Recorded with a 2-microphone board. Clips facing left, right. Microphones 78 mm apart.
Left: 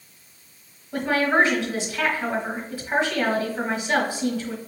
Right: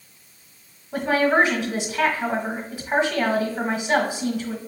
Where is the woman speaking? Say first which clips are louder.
Right 1 dB; 20° right (ahead or behind), 1.4 m.